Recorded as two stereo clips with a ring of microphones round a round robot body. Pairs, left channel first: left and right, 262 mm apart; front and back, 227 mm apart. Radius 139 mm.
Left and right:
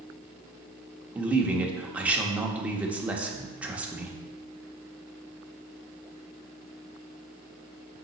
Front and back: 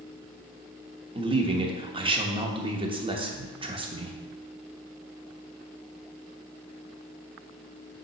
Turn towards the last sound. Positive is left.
turn(degrees=-165)